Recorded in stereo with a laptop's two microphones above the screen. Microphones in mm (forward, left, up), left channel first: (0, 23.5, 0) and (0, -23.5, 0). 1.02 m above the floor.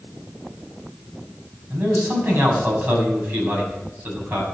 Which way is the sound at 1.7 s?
40° right (ahead or behind).